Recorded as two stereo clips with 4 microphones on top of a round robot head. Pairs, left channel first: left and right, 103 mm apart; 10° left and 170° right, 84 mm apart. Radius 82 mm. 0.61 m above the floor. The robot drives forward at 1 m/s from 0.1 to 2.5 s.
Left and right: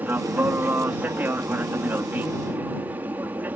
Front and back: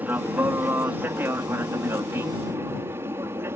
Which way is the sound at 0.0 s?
135° right.